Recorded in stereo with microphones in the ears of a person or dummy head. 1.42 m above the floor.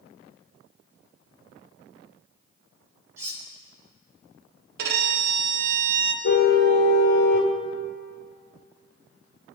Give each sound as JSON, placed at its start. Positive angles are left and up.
{"t": 3.2, "sound": "cutlery clinking", "side_deg": -15, "distance_m": 5.0}
{"t": 4.8, "sound": "a violin", "side_deg": -65, "distance_m": 1.8}
{"t": 6.2, "sound": "a car horn", "side_deg": 55, "distance_m": 2.0}